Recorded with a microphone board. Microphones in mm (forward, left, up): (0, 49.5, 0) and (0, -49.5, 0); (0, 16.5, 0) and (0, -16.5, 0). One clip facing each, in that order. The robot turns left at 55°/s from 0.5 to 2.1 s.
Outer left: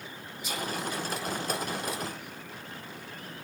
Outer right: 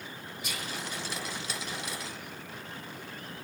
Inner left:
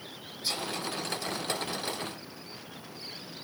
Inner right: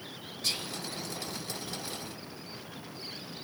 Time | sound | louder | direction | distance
0.4 | whispering | outer left 6 dB, inner left 1 dB | 65° right (ahead or behind) | 2.5 m